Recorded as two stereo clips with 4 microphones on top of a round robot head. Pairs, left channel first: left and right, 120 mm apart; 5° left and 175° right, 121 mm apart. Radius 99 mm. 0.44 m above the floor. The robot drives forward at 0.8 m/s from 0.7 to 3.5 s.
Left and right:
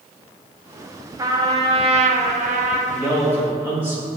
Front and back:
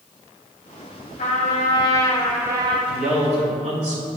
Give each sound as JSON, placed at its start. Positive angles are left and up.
{"t": 1.2, "sound": "a trumpet", "azimuth_deg": -30, "distance_m": 1.1}
{"t": 2.9, "sound": "a man speaking", "azimuth_deg": -155, "distance_m": 2.0}